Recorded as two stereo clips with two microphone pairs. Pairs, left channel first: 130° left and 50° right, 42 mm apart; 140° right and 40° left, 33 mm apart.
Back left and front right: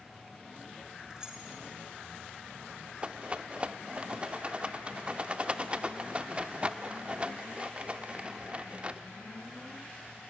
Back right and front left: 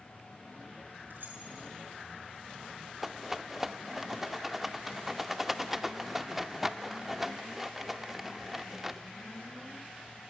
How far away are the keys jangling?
About 3.5 m.